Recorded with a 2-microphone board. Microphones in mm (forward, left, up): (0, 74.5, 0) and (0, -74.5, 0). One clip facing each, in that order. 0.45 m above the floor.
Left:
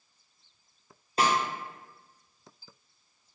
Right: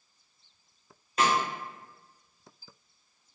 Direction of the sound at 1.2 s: 30° left (ahead or behind).